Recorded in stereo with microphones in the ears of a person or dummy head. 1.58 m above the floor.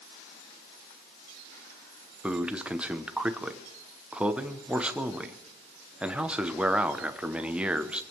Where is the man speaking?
5° right (ahead or behind), 1.0 m.